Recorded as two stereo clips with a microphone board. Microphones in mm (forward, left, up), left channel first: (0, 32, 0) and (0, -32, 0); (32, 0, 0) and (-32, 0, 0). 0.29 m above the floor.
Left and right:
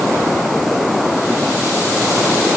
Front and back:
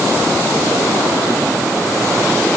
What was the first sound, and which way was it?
Only background noise.